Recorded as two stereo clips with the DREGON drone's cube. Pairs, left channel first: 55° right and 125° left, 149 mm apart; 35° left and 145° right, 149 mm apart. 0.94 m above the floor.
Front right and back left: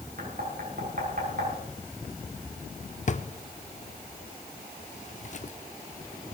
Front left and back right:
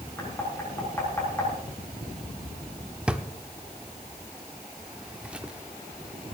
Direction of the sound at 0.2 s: 110° left.